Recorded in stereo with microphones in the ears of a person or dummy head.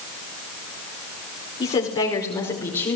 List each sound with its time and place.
1.6 s a woman speaking: 35° left (ahead or behind), 4.5 m; by 3.0 s 20° left (ahead or behind), 6 m